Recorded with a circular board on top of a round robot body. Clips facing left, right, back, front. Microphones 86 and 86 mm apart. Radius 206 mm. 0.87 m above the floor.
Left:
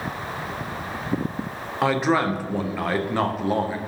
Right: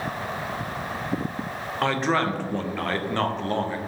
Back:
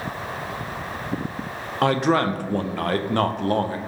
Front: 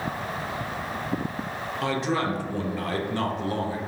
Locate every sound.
1.8 s a man speaking: 170° left, 0.5 m